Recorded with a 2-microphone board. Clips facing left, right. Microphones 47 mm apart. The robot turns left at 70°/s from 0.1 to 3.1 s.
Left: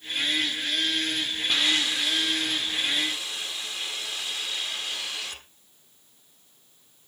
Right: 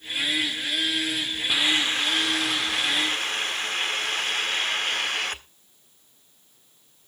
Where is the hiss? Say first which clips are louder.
Right 2 dB; 10° right, 1.5 m; by 5.4 s 120° right, 1.5 m.